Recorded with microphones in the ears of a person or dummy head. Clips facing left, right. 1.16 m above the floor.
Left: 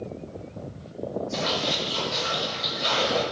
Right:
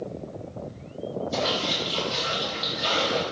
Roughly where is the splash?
Right.